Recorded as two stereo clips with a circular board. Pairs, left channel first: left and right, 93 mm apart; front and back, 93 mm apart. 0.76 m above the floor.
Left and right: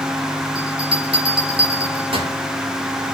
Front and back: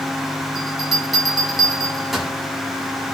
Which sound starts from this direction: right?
A bell, at 0.6 s.